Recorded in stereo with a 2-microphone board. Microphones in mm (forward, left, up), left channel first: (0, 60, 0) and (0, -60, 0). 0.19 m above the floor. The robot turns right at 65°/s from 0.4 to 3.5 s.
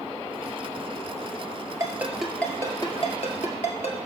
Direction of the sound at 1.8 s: 30° right (ahead or behind).